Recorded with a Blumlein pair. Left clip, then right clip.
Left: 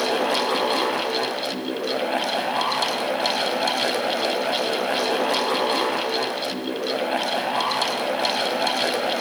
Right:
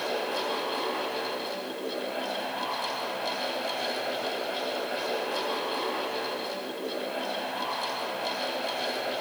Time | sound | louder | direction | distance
0.0 | a fan | left 8 dB | 40° left | 1.3 m